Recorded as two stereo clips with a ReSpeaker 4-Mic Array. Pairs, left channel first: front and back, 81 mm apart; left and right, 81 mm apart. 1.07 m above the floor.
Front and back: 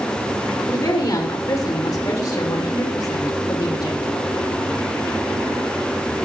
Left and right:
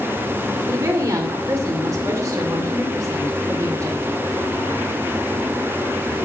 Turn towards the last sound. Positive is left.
turn(degrees=-45)